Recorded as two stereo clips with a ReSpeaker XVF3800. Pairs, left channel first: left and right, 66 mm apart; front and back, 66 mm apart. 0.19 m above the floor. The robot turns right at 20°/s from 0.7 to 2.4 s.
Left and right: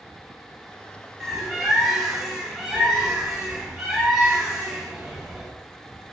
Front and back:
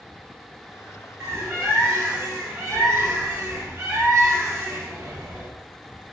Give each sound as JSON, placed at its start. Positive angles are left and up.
{"t": 1.2, "sound": "a bird", "azimuth_deg": 175, "distance_m": 1.4}